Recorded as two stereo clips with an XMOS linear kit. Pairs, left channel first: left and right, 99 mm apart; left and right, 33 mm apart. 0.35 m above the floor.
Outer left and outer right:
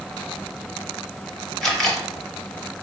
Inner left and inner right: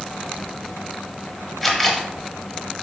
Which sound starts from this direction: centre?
A camera shutter, at 1.6 s.